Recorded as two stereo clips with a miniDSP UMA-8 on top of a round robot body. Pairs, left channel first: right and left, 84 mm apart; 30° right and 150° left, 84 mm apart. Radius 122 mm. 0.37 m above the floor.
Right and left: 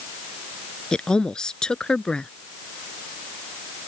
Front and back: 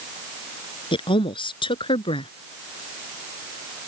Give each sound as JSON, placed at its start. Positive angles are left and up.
{"t": 0.9, "sound": "a woman speaking", "azimuth_deg": -10}